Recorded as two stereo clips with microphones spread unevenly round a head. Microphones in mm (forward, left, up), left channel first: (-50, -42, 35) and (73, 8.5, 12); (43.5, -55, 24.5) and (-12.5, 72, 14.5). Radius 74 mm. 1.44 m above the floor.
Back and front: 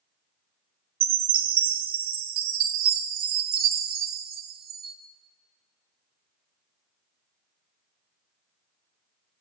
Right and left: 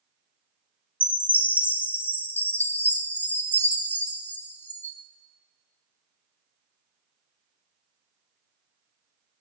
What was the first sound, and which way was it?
A chime, 10° left.